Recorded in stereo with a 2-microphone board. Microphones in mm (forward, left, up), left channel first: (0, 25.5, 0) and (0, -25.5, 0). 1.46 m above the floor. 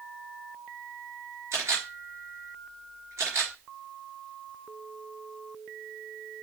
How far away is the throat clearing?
I don't hear throat clearing.